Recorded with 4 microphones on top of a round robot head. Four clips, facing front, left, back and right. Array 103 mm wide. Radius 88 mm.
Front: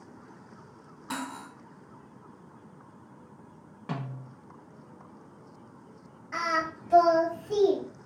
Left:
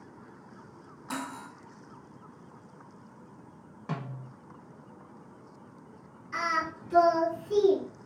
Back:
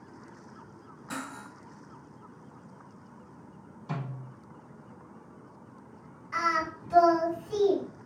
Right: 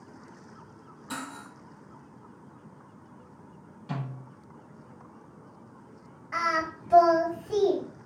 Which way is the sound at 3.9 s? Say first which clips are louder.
Right 1 dB, front 1 dB; 35° left.